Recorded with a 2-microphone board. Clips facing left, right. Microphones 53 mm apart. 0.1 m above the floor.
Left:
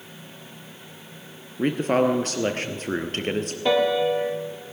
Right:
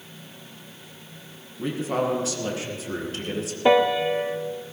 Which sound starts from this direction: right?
A piano, at 3.6 s.